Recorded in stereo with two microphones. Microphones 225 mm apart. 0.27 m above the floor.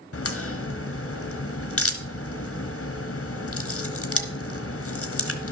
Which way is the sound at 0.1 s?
80° left.